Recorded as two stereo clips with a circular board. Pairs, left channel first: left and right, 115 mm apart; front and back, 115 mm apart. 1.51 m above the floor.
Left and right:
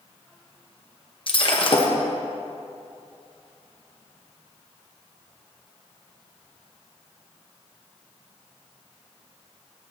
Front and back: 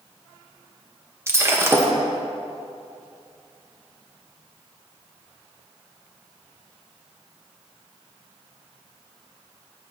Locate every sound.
1.3 s breaking glass: 120° left, 0.9 m